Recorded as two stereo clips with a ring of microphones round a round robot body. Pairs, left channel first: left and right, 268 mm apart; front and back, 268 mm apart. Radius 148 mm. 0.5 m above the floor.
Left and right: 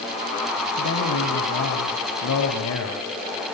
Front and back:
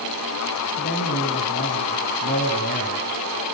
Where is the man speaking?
60° left, 3 m.